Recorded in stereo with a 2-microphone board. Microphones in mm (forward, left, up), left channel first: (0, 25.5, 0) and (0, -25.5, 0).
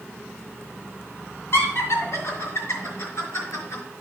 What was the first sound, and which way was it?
Laughter, 65° left (ahead or behind).